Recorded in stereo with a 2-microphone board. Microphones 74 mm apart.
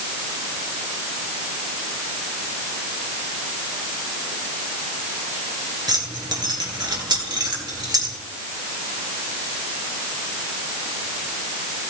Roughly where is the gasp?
No gasp in this recording.